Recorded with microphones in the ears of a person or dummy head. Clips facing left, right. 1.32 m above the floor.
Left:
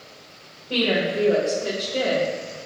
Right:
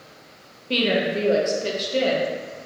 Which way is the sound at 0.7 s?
35° right (ahead or behind).